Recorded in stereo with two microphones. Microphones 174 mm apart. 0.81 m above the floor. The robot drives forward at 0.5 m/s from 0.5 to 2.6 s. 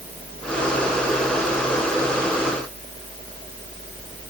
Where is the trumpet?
No trumpet in this recording.